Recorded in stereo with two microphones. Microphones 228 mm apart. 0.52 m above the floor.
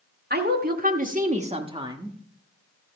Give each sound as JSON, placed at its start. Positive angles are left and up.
{"t": 0.3, "sound": "a woman speaking", "side_deg": -45, "distance_m": 1.5}